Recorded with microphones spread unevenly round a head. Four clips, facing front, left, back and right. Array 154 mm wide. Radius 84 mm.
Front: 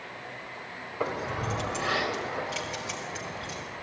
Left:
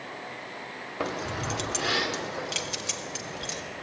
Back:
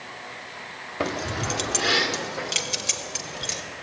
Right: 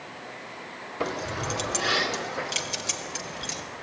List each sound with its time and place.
1.0 s keys jangling: 170° left, 2.5 m